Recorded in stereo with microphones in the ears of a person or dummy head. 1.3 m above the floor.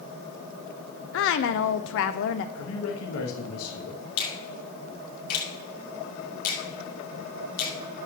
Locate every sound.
1.1 s a woman speaking: 65° left (ahead or behind), 0.5 m
2.5 s a man speaking: 80° left, 1.3 m
4.2 s a finger snap: 50° left (ahead or behind), 2 m